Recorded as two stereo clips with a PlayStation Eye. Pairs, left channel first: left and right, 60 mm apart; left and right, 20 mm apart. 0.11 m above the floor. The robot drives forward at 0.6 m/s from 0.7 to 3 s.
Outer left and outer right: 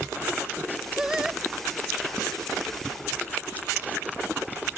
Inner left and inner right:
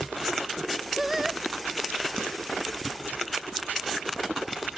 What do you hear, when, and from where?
1.0 s singing: 10° right (ahead or behind)